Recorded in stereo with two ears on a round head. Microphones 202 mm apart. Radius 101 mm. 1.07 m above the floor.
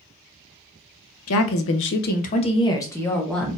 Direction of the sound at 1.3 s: 65° left (ahead or behind).